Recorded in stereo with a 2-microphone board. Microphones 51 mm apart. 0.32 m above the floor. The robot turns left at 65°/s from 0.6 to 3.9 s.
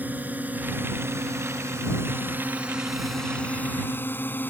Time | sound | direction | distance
0.0 | a drone | 35° right (ahead or behind) | ?